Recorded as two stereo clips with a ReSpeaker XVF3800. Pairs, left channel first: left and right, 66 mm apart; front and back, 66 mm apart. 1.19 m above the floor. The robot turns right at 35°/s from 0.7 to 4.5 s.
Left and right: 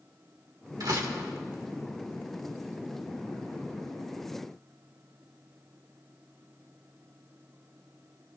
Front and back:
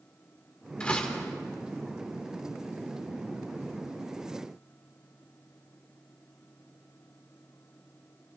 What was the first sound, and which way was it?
A door slam, 75° right.